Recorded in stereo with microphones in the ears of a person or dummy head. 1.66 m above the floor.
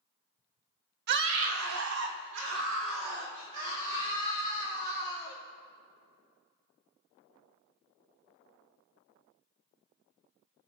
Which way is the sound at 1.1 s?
50° right (ahead or behind).